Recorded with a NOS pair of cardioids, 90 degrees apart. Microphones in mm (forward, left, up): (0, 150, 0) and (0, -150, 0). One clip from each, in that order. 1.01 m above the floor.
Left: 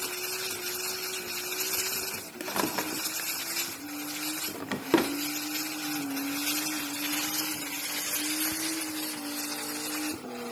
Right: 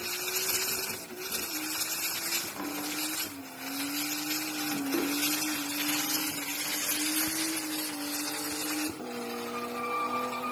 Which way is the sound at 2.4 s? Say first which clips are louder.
Left 5 dB; 60° left.